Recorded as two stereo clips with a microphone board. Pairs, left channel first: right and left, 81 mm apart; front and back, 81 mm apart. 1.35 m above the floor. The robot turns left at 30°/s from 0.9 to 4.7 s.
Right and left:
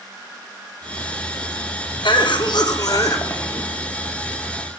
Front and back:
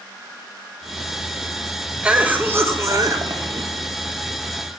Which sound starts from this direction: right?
A cough, at 2.0 s.